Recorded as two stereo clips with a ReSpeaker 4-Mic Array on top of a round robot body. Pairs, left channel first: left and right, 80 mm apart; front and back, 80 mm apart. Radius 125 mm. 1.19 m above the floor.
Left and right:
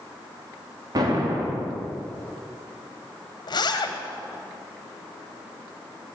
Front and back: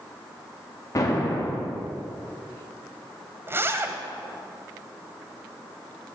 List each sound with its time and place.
0.9 s an explosion: 50° right, 2.5 m
3.5 s a zipper: 120° left, 1.1 m